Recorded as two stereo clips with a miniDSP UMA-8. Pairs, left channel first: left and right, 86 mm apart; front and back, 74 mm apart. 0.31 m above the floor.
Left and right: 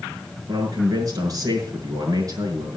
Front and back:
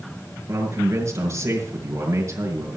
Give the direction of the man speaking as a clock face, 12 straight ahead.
4 o'clock.